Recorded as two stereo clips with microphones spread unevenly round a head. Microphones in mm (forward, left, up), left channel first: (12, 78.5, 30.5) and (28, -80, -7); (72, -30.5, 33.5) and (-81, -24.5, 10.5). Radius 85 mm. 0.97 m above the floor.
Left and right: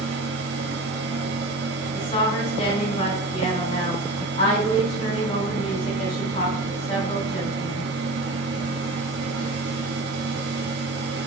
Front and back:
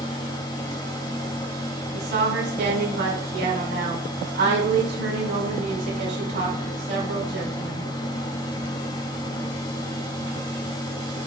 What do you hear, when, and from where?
0.0 s a fan: 65° right, 0.8 m
1.9 s a woman speaking: 155° left, 4 m